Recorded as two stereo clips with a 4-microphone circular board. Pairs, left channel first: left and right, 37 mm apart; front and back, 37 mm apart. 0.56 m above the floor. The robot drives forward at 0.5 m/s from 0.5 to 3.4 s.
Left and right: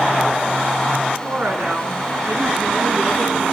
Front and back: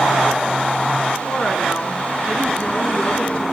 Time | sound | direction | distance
1.2 | a woman speaking | 45° right | 5 m